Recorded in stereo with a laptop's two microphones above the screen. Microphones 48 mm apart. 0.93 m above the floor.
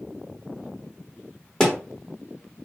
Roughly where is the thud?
Centre.